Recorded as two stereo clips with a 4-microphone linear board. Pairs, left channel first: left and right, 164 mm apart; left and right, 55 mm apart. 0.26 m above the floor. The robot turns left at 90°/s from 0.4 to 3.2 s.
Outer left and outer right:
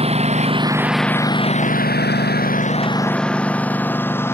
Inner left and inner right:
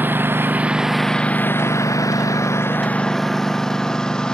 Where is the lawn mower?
40° right (ahead or behind); by 4.3 s 15° left (ahead or behind).